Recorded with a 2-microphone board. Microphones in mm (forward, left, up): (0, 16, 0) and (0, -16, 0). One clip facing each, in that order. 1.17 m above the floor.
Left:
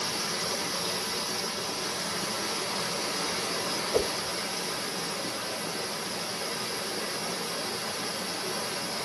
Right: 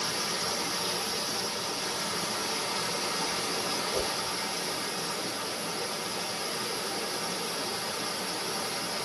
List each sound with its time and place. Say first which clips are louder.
0.0 s running water: even; 10° left (ahead or behind), 1.0 m
3.9 s a whoosh: left 7 dB; 55° left (ahead or behind), 0.5 m